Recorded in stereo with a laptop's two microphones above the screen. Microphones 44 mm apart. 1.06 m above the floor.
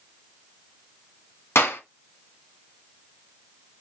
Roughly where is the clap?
Left.